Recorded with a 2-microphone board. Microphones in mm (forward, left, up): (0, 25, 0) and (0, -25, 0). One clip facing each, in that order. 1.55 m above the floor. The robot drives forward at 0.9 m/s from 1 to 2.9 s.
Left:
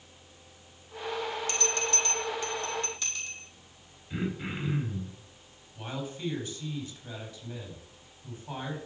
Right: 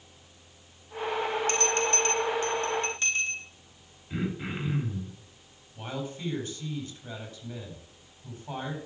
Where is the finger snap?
I don't hear a finger snap.